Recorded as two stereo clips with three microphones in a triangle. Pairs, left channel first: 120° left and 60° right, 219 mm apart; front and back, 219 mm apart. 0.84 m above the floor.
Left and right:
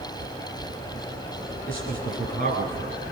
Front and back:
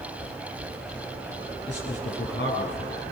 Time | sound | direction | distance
1.7 | a man speaking | 35° right | 8.5 m